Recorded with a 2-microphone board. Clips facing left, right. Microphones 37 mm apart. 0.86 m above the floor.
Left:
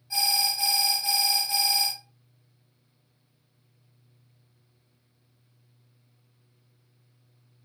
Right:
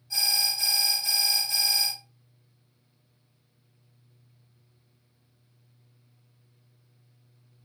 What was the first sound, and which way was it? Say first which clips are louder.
An alarm: left 1 dB; 15° left (ahead or behind).